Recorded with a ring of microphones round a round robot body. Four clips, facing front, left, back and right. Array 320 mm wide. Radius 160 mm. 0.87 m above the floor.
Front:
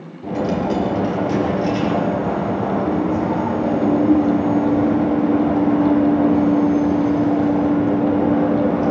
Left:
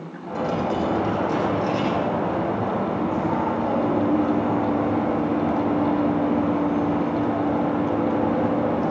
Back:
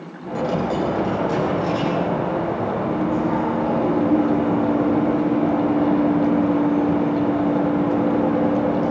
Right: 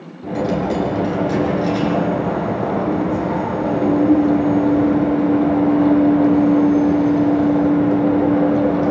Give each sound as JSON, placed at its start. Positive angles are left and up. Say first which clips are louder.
{"t": 0.2, "sound": "a dropped coin", "louder": "right 5 dB, front 2 dB", "azimuth_deg": -35, "distance_m": 10.0}